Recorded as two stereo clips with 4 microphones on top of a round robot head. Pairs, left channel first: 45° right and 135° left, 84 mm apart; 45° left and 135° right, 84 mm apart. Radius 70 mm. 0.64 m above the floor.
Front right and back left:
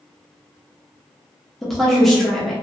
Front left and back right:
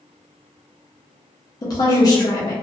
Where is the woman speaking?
45° left, 0.9 m.